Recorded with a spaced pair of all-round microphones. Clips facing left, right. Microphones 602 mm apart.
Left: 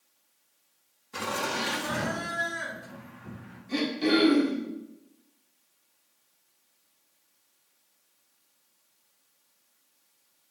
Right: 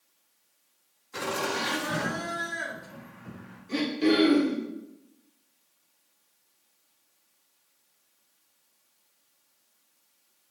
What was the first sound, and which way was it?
Laughter, 55° left (ahead or behind).